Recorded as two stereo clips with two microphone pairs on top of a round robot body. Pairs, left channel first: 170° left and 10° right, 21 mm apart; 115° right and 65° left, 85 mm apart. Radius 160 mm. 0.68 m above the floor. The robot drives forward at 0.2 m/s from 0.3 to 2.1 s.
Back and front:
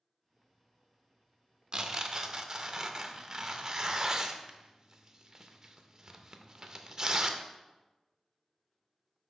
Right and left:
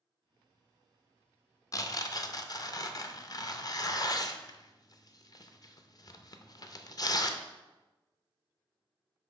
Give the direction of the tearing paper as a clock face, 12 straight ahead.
2 o'clock.